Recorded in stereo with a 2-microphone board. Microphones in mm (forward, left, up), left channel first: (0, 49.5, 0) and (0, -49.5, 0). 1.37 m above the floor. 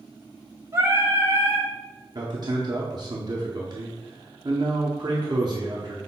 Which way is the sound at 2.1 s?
40° right (ahead or behind).